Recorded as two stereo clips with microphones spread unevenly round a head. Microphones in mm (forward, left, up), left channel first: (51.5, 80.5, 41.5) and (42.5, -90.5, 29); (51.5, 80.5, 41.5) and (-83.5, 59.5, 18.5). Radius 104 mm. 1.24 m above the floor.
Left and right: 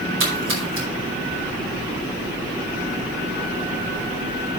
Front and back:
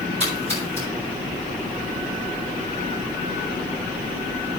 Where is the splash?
115° right, 5 m.